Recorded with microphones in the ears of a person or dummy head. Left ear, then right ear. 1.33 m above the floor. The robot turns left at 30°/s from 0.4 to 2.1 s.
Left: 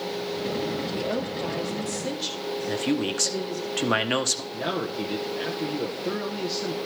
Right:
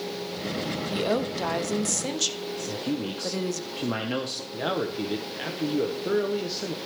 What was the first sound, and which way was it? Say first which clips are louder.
A woman speaking: right 2 dB; 80° right.